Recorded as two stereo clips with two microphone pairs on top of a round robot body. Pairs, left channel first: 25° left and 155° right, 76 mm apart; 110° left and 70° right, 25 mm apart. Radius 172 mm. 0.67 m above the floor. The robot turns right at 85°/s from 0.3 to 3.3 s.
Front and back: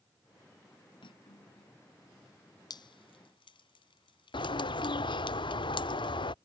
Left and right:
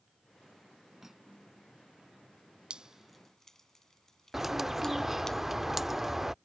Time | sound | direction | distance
1.0 | cutlery clinking | straight ahead | ?
2.7 | dripping | 20° right | ?
4.3 | a bird | 5° left | ?